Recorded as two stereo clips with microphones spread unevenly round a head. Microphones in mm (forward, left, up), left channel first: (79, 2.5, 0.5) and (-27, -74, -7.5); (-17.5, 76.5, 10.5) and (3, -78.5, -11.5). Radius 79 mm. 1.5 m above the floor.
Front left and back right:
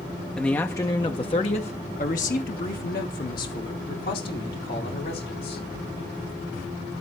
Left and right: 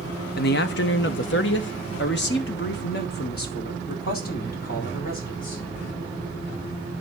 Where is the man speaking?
120° left, 0.8 m; by 5.6 s 60° left, 3 m.